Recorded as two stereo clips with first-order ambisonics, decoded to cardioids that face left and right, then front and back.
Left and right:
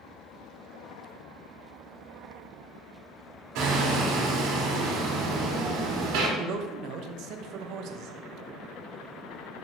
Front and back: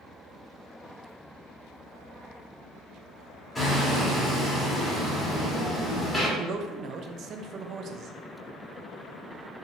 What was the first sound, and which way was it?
Hammering, 80° right.